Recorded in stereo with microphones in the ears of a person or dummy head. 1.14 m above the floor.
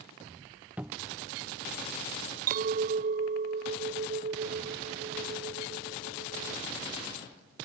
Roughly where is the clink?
Right.